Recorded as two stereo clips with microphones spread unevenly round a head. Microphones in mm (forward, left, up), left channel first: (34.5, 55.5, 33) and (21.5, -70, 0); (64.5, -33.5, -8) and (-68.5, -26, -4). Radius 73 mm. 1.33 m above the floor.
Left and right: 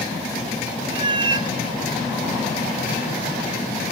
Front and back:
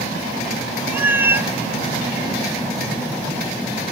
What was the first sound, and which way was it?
A cat meowing, 140° right.